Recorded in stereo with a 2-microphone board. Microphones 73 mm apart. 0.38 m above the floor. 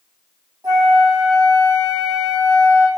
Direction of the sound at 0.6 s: 60° right (ahead or behind).